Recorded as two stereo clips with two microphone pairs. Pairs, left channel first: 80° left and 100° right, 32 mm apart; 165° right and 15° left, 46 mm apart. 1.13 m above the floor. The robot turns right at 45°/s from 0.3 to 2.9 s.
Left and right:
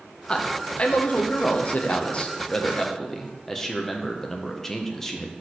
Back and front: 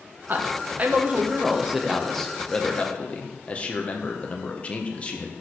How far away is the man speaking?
About 0.8 m.